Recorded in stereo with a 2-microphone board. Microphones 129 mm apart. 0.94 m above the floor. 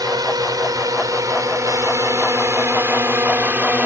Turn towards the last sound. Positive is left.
turn(degrees=-15)  # may be behind; listen again after turning